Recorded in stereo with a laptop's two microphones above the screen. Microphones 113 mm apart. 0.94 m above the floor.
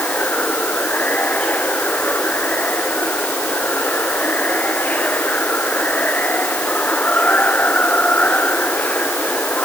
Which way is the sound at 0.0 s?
15° left (ahead or behind).